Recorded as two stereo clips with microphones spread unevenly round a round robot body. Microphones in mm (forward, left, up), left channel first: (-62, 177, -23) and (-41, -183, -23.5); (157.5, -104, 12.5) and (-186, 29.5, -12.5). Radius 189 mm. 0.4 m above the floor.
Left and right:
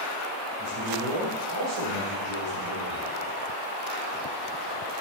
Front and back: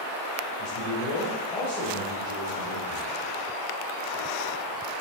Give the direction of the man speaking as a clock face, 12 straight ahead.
1 o'clock.